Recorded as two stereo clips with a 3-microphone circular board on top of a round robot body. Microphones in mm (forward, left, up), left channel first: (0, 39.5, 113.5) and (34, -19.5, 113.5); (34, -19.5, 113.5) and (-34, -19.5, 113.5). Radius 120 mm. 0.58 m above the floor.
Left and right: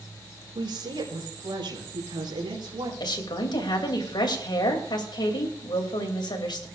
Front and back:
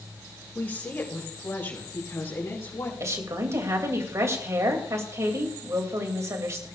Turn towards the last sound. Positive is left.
turn(degrees=130)